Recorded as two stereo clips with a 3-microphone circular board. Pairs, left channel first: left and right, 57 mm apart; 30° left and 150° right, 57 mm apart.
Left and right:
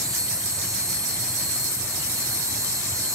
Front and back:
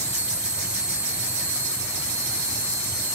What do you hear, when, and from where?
0.0 s an insect: 80° right, 6.5 m